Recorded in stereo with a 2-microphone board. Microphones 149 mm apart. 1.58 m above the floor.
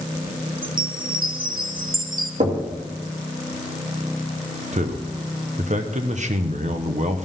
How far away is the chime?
About 1.1 m.